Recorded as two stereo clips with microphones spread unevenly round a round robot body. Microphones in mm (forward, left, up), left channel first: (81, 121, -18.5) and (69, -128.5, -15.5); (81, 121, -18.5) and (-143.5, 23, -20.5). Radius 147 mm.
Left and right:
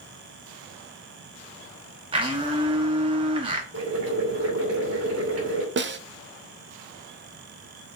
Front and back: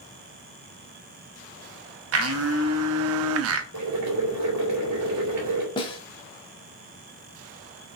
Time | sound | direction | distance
2.1 | a blender | 165° right | 1.0 m
3.7 | boiling | 135° right | 3 m
5.8 | a snare drum | 50° right | 0.9 m